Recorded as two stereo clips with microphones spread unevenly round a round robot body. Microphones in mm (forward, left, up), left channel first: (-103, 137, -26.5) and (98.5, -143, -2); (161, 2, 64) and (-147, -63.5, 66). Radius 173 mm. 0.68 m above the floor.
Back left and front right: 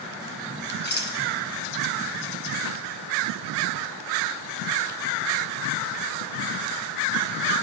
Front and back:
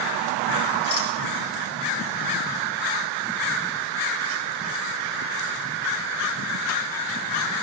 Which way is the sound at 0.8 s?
65° left.